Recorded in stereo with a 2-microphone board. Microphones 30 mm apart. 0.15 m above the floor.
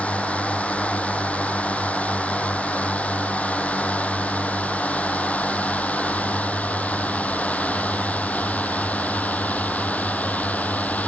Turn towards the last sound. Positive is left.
turn(degrees=60)  # may be behind; listen again after turning